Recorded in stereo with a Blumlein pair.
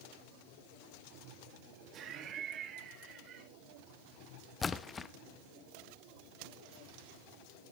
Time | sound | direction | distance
1.9 | laughter | 30° right | 1.1 m
4.6 | a splash | 15° left | 0.7 m